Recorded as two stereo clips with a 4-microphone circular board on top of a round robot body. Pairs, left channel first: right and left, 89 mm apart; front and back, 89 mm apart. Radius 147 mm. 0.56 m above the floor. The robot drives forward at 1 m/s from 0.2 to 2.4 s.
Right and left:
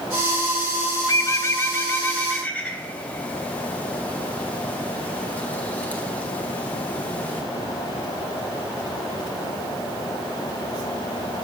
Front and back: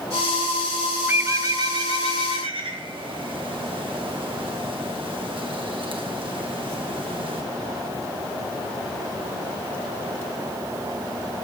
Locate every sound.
1.1 s a bird: 120° right, 0.9 m; by 7.4 s 160° right, 1.8 m